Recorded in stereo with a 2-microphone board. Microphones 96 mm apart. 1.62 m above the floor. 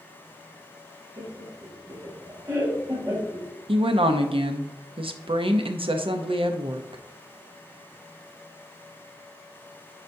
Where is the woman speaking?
65° right (ahead or behind), 0.7 m.